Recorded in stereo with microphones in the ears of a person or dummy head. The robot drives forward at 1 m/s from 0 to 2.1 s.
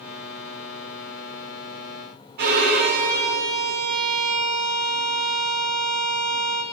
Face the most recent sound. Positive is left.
turn(degrees=-55)  # may be behind; listen again after turning